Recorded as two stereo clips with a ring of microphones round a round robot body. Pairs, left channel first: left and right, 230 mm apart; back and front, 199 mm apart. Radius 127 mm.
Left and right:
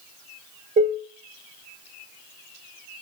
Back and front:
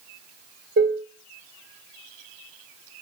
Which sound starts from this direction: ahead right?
Dishes clattering, at 0.8 s.